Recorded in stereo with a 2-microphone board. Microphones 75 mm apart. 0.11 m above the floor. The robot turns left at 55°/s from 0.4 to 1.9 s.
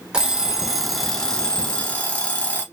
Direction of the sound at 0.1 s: 10° right (ahead or behind).